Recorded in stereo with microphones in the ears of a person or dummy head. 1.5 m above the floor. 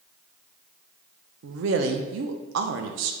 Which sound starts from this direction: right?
A woman speaking, at 1.4 s.